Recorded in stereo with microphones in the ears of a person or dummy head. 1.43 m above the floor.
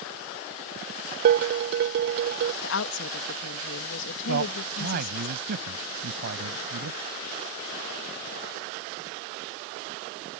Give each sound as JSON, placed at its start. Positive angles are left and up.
{"t": 1.2, "sound": "dishes clattering", "side_deg": -50}
{"t": 2.6, "sound": "a woman speaking", "side_deg": 75}
{"t": 4.3, "sound": "a man speaking", "side_deg": -60}